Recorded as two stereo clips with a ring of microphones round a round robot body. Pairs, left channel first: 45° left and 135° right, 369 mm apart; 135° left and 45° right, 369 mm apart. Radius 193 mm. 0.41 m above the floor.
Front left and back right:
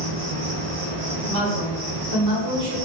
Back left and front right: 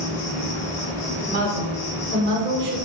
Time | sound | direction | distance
0.0 | an insect | 160° left | 0.7 m
1.3 | a woman speaking | 90° right | 1.3 m